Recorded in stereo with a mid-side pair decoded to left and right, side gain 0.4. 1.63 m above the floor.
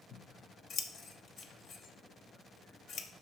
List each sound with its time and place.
0.1 s scissors: 65° left, 1.1 m